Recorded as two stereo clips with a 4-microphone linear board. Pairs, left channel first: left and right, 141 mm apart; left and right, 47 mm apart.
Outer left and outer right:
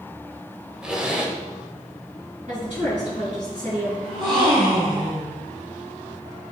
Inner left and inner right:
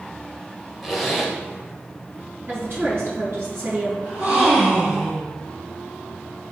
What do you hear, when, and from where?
0.8 s a zipper: 5° right (ahead or behind), 1.8 m
2.5 s a woman speaking: 70° right (ahead or behind), 3.5 m
4.0 s a gasp: 35° right (ahead or behind), 4.5 m